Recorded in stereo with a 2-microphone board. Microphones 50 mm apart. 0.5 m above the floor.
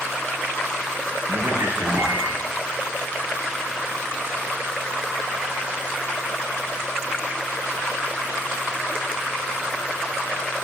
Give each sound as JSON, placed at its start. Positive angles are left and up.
{"t": 1.3, "sound": "a man speaking", "side_deg": -70, "distance_m": 8.0}